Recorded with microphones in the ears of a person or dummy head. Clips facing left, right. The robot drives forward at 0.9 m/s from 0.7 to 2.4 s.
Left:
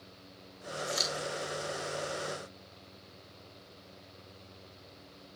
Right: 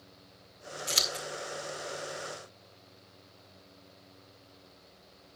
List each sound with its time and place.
0.9 s scissors: 40° right (ahead or behind), 1.8 m; by 1.2 s 35° right (ahead or behind), 2.0 m